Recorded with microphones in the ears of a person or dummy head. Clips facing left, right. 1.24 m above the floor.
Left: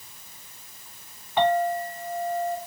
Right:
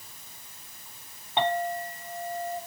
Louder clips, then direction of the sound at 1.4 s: Left 5 dB; 25° right (ahead or behind).